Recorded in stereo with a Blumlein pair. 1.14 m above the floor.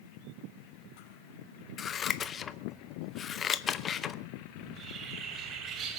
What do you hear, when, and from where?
1.8 s scissors: 25° left, 0.7 m
4.6 s a bird: 25° right, 2.5 m